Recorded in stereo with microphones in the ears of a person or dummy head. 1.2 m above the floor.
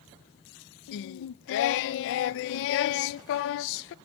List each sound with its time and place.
0.9 s singing: 70° left (ahead or behind), 0.5 m